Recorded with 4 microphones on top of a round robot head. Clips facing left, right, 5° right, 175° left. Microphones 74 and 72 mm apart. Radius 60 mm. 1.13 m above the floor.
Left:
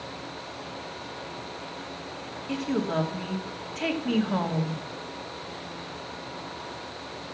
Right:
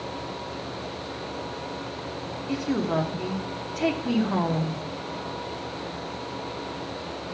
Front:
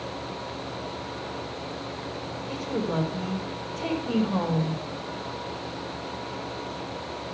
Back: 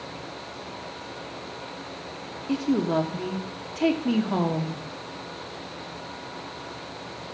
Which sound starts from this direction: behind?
A woman speaking, at 2.5 s.